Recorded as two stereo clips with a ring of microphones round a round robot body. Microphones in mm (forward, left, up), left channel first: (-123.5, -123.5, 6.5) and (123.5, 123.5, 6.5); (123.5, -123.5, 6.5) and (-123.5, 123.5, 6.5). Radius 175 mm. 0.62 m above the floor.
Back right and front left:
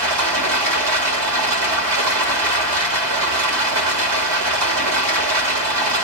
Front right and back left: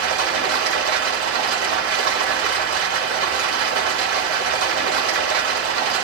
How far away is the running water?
About 2.5 m.